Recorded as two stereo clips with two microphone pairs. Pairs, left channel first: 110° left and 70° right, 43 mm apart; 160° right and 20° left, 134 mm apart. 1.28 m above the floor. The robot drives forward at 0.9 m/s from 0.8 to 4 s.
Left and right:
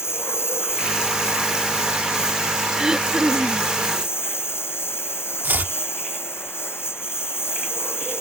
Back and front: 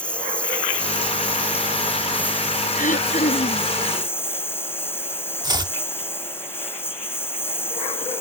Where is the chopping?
40° right.